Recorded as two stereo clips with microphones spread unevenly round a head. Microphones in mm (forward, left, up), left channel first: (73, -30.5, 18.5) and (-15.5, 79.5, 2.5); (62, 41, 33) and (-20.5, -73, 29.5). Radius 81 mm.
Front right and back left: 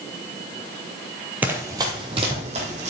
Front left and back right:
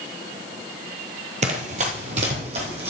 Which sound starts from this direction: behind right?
Running footsteps, at 1.4 s.